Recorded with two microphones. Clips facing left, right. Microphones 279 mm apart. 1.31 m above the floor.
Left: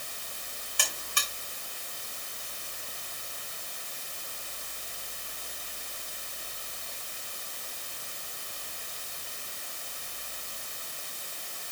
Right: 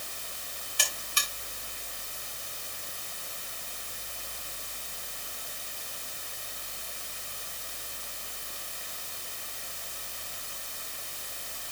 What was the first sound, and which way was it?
A buzzer, 55° left (ahead or behind).